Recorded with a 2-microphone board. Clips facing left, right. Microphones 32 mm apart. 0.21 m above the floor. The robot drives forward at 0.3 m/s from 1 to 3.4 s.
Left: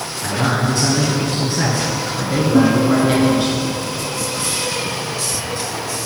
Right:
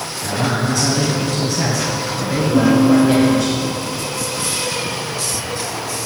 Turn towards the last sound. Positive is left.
turn(degrees=50)  # may be behind; listen again after turning